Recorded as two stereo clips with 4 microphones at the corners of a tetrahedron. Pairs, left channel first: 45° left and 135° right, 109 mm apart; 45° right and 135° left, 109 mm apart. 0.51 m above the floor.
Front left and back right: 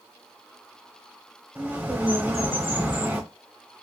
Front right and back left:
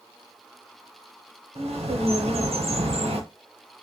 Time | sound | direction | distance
1.6 | a bird | 155° left | 0.6 m